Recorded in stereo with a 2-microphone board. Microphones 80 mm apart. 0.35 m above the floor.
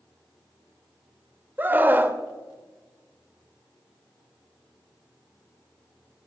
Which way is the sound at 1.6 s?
25° right (ahead or behind).